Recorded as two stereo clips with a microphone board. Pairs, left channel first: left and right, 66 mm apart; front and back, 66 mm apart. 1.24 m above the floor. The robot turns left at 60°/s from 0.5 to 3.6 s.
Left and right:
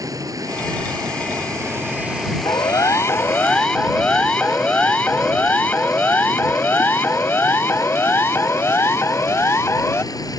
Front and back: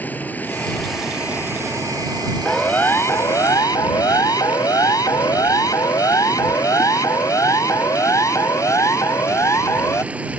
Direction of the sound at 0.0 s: 65° right.